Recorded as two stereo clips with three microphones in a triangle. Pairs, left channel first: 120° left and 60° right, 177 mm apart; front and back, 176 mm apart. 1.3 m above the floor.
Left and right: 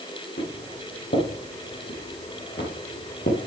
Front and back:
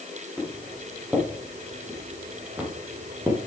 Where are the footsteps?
95° left, 5 m; by 3.4 s 105° left, 3.5 m.